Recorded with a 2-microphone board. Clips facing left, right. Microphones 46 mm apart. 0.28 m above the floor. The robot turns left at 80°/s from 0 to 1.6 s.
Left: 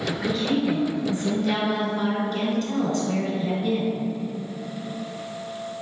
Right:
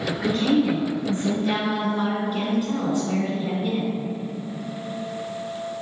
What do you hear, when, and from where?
0.2 s a woman speaking: 60° right, 2.5 m; by 4.0 s 170° right, 2.5 m